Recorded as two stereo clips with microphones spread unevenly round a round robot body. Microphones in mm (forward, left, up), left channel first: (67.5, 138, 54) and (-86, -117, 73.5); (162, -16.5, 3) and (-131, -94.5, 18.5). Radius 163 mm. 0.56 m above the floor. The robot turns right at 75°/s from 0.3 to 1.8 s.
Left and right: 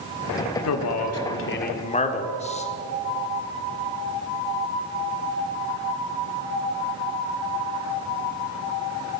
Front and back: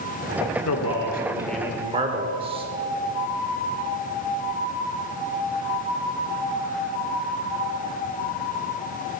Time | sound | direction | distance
0.7 | a man speaking | 35° left | 1.8 m